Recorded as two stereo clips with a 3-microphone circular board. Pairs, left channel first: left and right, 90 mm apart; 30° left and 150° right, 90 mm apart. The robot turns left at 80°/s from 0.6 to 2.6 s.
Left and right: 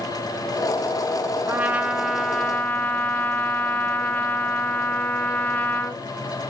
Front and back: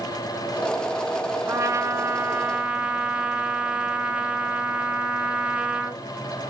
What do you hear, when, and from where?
1.5 s a trumpet: 130° right, 1.3 m; by 6.0 s 140° left, 1.3 m